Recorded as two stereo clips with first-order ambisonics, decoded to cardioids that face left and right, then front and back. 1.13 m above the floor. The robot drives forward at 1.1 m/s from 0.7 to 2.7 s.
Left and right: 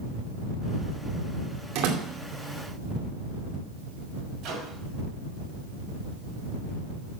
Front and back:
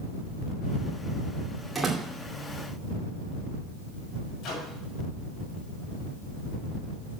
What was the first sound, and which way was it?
A door slam, 95° right.